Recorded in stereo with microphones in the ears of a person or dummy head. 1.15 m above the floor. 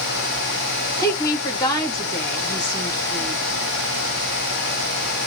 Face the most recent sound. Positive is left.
turn(degrees=20)  # may be behind; listen again after turning